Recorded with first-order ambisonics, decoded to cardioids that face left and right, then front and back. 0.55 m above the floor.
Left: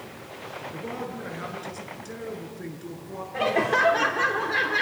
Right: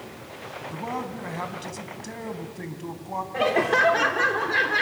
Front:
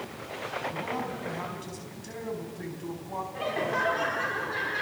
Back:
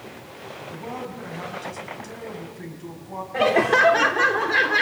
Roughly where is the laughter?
Behind.